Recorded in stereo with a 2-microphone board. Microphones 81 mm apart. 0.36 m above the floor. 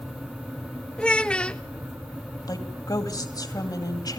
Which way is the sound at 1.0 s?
10° left (ahead or behind).